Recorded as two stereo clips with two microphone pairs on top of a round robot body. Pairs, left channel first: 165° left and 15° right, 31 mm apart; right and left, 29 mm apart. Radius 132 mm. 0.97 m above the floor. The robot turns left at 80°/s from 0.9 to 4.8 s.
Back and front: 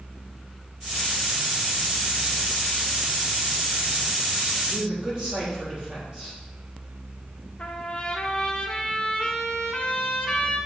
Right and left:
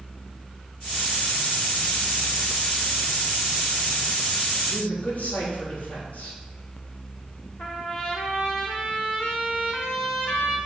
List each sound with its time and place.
4.7 s a man speaking: 50° right, 4 m; by 6.4 s 60° right, 4 m
7.6 s a trumpet: 130° right, 1.2 m